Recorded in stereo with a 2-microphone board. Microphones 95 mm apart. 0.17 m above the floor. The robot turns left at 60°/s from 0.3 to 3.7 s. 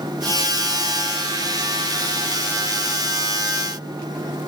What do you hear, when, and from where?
Only background noise.